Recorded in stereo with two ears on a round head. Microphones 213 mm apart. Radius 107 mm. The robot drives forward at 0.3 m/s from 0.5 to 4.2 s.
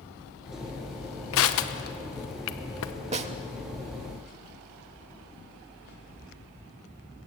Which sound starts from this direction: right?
A snare drum, at 3.1 s.